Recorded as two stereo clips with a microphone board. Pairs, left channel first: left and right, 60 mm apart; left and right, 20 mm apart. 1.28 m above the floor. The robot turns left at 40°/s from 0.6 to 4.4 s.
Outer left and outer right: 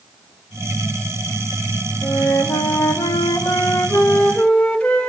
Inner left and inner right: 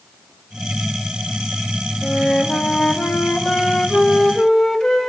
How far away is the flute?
About 1.2 m.